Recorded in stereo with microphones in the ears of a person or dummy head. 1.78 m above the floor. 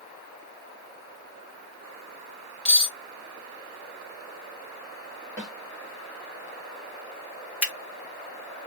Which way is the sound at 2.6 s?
5° left (ahead or behind).